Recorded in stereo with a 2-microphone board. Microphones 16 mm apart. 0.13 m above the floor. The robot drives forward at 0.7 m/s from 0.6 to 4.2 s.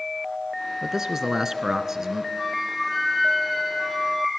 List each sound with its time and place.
0.8 s a man speaking: 30° right (ahead or behind), 1.5 m
2.4 s a flute: 10° right (ahead or behind), 5.5 m